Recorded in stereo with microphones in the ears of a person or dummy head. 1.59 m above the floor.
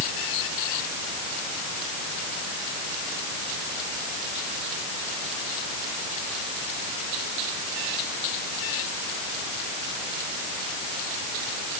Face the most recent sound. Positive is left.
No sound to turn to.